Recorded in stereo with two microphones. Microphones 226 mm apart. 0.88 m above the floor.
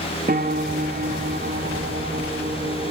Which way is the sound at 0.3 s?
40° right (ahead or behind).